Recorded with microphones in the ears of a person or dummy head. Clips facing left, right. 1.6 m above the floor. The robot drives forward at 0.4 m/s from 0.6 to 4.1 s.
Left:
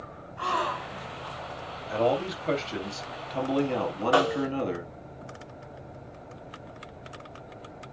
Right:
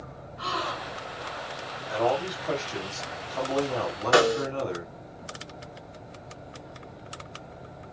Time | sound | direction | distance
0.4 | a gasp | 60° left (ahead or behind) | 3 m
1.9 | a man speaking | 35° left (ahead or behind) | 3.5 m
4.1 | a snare drum | 25° right (ahead or behind) | 1.0 m